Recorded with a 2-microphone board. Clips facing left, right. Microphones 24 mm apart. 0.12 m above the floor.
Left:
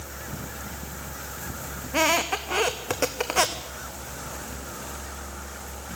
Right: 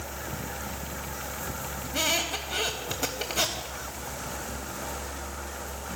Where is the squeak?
75° left (ahead or behind), 1.0 m.